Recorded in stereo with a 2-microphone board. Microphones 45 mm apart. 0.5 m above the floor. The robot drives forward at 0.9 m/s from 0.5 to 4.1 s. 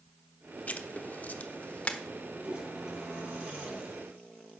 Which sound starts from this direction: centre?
A toilet flushing, at 2.4 s.